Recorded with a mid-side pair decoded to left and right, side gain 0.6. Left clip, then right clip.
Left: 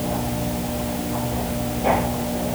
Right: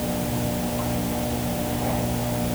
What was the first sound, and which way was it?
Only background noise.